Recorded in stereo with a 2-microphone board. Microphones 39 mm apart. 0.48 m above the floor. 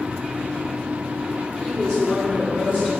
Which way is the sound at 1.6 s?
15° left (ahead or behind).